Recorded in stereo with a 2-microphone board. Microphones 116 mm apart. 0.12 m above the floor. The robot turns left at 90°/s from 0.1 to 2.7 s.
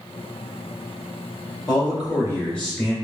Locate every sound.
1.7 s a man speaking: 95° left, 1.5 m; by 3.0 s straight ahead, 1.5 m